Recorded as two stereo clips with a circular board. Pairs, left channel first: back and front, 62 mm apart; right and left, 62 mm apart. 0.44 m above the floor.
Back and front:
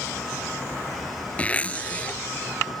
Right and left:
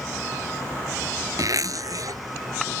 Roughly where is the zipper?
Left.